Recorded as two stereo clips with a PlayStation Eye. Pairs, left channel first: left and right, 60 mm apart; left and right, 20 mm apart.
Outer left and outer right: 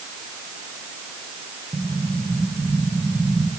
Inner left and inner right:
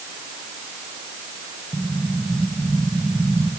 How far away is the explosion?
About 3.5 m.